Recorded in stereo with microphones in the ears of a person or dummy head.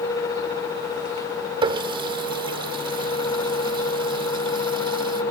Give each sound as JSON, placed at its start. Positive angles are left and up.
{"t": 1.6, "sound": "a running tap", "side_deg": -25}